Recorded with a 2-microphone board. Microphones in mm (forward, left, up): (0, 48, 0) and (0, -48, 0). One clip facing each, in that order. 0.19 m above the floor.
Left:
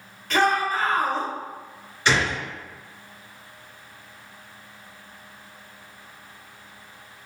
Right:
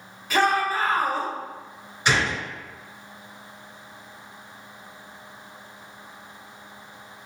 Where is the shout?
5° right (ahead or behind), 1.2 m.